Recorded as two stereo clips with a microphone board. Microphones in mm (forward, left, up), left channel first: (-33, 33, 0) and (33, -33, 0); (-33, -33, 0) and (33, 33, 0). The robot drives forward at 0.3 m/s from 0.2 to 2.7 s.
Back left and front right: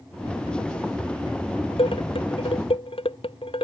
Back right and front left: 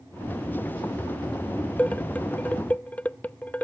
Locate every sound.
1.8 s dishes clattering: 150° left